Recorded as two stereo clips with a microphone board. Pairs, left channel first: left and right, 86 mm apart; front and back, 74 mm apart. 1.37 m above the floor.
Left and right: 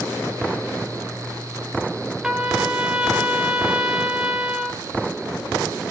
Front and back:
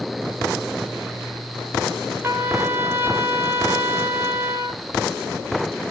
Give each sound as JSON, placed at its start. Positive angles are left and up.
{"t": 2.2, "sound": "a trumpet", "azimuth_deg": -165, "distance_m": 1.3}